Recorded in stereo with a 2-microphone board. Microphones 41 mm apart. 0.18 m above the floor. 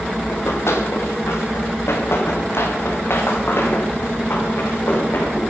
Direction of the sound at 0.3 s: 85° left.